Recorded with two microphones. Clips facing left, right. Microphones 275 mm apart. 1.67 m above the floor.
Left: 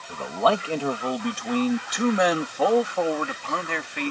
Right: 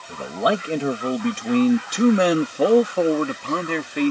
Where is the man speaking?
15° right (ahead or behind); by 4.1 s 45° right (ahead or behind).